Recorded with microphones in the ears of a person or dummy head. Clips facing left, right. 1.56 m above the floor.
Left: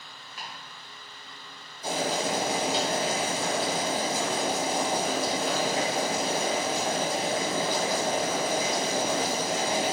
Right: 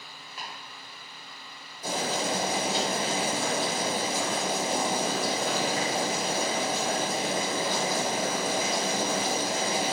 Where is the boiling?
55° right (ahead or behind), 1.3 m.